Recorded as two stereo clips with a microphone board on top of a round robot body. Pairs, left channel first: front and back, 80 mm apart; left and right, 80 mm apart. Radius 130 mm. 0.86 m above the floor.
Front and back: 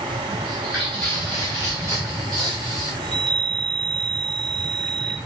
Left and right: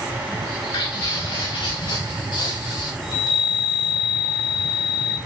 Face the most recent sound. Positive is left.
turn(degrees=95)